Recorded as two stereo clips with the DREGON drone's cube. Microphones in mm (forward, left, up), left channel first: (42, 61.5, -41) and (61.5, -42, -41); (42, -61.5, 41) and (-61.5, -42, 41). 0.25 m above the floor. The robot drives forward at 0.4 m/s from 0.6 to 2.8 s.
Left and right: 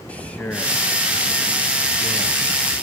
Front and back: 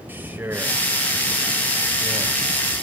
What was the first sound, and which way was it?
A man speaking, 145° left.